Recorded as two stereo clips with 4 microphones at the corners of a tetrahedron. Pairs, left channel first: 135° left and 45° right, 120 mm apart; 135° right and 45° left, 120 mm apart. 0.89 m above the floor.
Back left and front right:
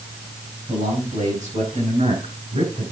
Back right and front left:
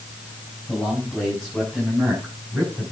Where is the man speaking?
45° right, 6.5 m; by 2.9 s 40° right, 7.5 m.